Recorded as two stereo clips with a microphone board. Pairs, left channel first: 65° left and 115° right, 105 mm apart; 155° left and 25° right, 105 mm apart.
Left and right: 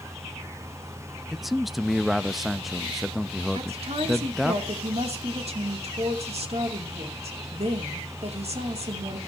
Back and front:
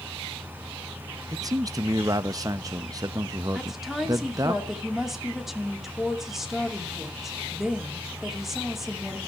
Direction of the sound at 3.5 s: 110° right.